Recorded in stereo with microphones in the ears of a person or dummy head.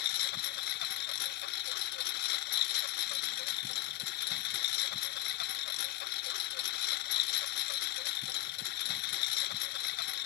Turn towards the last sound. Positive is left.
turn(degrees=60)  # may be behind; listen again after turning